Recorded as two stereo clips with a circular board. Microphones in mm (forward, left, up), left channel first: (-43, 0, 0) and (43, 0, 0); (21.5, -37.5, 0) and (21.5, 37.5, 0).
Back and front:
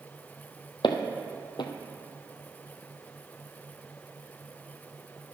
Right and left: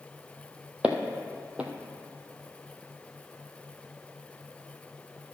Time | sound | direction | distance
0.8 | footsteps | 165° left | 1.0 m